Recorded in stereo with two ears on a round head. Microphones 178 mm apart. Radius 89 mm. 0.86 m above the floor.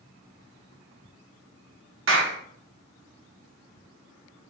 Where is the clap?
70° right (ahead or behind), 0.9 m.